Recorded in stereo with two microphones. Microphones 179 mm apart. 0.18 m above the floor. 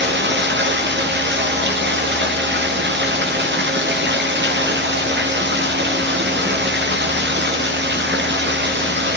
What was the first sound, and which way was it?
Running water, 90° right.